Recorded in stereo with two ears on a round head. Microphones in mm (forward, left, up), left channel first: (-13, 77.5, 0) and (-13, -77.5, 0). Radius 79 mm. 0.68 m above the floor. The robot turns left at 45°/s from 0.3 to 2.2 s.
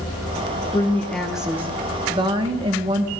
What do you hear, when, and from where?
0.7 s a woman speaking: 25° left, 1.0 m; by 3.1 s 40° right, 1.0 m